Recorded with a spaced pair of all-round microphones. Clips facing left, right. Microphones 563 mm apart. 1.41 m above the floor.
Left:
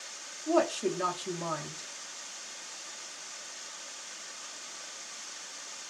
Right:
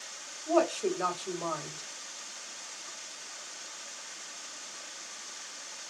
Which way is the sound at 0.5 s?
40° left (ahead or behind).